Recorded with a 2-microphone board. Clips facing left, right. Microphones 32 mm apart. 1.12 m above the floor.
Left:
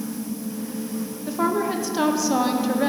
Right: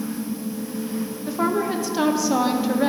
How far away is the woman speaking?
About 0.6 m.